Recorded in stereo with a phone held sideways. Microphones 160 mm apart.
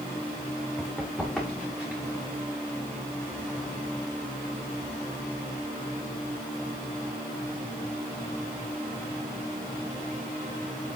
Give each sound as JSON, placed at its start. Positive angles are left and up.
{"t": 0.8, "sound": "running footsteps", "side_deg": 0, "distance_m": 6.0}